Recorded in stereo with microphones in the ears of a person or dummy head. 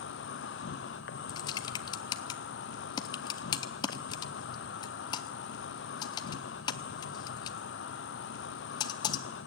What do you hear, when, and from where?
0.0 s an insect: 55° left (ahead or behind), 0.8 m
1.3 s typing on a keyboard: 30° left (ahead or behind), 0.6 m